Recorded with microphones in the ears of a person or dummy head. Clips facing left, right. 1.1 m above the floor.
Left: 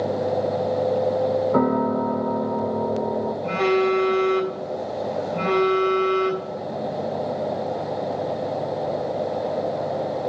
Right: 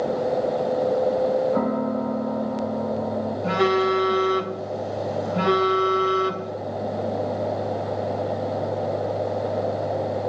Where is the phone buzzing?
15° right (ahead or behind), 3 m.